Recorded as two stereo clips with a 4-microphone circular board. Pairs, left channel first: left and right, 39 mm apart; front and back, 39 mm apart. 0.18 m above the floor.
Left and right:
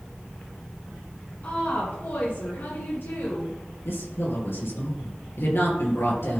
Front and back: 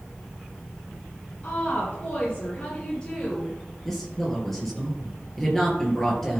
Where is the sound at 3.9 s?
80° left, 4 m.